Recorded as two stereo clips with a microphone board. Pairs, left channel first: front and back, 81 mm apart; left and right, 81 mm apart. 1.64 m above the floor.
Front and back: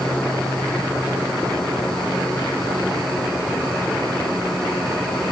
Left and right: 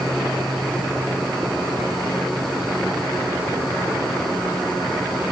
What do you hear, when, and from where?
Only background noise.